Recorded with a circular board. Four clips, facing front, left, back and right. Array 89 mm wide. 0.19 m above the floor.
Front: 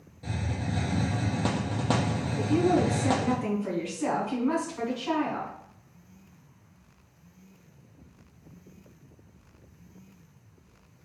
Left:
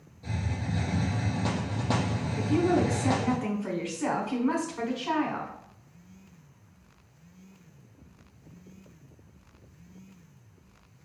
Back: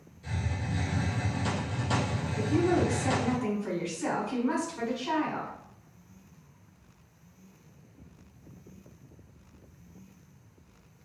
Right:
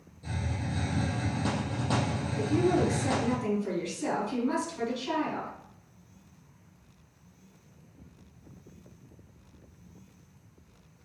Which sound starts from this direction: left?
A woman speaking, at 2.4 s.